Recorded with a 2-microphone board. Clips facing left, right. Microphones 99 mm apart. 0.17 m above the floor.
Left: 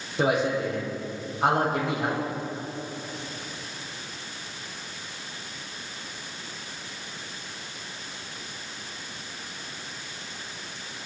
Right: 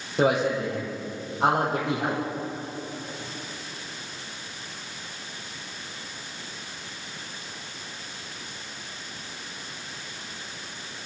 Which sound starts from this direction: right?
A man speaking, at 0.2 s.